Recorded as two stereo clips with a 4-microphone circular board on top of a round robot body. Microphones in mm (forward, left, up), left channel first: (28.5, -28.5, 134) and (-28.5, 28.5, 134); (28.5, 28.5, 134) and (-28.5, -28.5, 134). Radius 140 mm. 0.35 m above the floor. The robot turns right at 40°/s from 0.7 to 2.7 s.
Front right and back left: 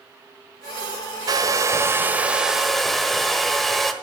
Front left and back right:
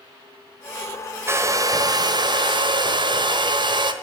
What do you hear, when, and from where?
1.3 s a hair dryer: 170° left, 1.3 m; by 3.9 s 135° right, 1.3 m